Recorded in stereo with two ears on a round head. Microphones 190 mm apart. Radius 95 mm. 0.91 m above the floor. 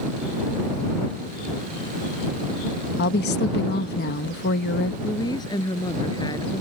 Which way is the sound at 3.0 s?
50° left (ahead or behind).